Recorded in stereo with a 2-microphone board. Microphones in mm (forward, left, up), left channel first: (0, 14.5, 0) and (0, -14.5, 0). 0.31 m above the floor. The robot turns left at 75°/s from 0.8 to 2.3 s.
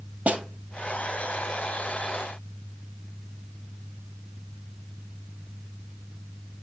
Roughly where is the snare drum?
Right.